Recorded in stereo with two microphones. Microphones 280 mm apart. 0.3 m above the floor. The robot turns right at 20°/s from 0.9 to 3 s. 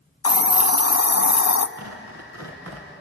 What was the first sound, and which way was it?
A hiss, 60° left (ahead or behind).